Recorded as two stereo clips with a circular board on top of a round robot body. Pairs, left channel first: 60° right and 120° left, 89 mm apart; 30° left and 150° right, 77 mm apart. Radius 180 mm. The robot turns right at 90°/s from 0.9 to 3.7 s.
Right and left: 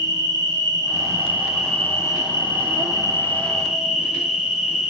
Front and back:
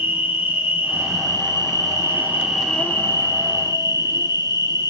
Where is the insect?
150° left, 1.5 m; by 4.9 s 40° left, 1.5 m.